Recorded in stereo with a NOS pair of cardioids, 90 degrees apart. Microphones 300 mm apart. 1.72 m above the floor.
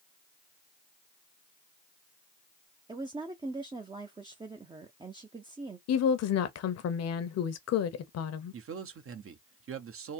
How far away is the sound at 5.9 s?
About 0.8 m.